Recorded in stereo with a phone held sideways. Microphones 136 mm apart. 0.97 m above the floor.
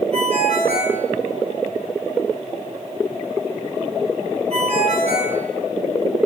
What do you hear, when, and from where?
0.1 s a ringtone: 50° right (ahead or behind), 5 m